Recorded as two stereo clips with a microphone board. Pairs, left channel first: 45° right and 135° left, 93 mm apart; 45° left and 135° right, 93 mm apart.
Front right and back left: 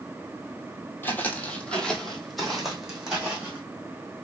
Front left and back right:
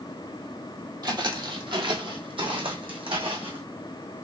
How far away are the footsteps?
About 1.3 m.